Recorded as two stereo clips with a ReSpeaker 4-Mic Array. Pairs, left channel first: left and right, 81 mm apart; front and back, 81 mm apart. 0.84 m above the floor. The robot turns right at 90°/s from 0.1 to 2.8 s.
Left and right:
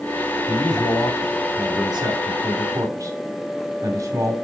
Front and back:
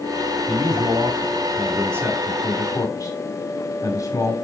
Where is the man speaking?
105° left, 2 m; by 4.3 s 45° right, 2 m.